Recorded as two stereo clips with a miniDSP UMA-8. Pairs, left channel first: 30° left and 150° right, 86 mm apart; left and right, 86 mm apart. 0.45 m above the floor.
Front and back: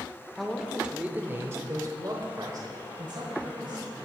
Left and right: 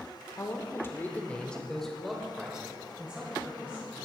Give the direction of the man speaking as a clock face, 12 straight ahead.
8 o'clock.